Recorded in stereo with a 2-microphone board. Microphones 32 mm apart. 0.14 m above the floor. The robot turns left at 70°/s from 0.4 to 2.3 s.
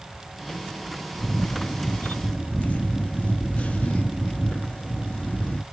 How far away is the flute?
No flute in this recording.